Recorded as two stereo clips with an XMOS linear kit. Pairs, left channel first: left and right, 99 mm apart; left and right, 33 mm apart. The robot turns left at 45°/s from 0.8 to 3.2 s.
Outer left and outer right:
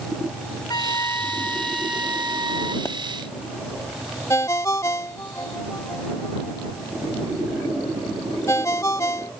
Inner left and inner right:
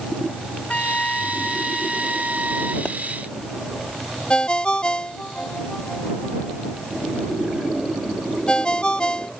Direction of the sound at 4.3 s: 30° left (ahead or behind).